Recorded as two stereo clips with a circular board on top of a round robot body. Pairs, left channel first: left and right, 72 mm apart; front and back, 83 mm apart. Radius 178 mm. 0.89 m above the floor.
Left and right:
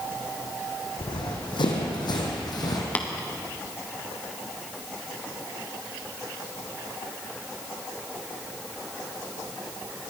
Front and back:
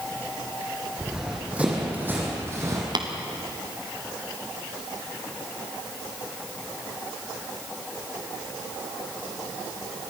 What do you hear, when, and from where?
1.0 s running footsteps: 100° left, 3.5 m; by 2.9 s 125° left, 2.5 m
3.0 s tapping: 160° left, 1.8 m